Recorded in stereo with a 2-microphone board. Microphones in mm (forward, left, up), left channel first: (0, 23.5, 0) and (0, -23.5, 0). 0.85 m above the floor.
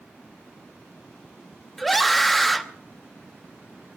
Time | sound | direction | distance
1.8 | a scream | centre (ahead or behind) | 0.9 m